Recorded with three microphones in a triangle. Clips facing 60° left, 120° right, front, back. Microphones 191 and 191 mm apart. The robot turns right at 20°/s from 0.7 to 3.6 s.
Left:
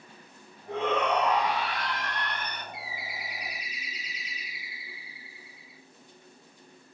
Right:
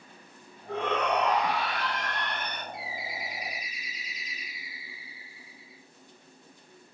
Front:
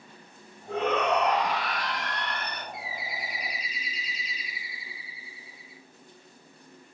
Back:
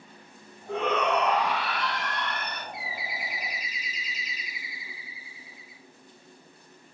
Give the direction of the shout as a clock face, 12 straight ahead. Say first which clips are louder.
Left 1 dB, even; 12 o'clock.